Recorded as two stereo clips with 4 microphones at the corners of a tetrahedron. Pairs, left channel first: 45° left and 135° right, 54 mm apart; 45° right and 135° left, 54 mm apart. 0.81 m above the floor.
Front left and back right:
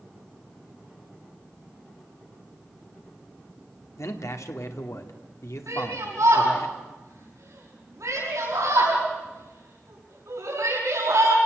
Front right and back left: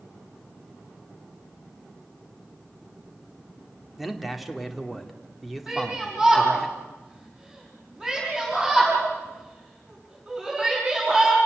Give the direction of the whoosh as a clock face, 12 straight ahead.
No whoosh in this recording.